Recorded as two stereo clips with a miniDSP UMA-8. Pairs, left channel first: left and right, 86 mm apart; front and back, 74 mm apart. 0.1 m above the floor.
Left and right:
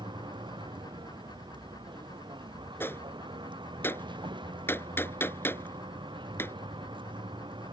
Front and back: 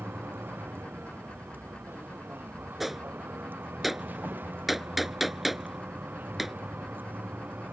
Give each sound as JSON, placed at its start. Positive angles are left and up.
{"t": 0.0, "sound": "a vehicle", "azimuth_deg": -115}
{"t": 2.8, "sound": "a gunshot", "azimuth_deg": 95}